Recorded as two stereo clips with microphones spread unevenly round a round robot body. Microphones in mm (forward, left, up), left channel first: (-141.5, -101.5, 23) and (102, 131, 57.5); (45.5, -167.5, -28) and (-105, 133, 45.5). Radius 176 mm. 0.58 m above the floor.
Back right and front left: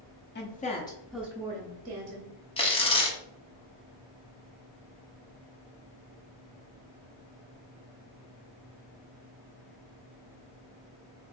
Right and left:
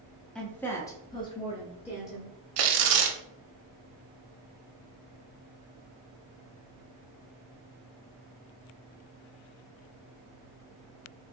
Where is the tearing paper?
145° left, 0.7 m.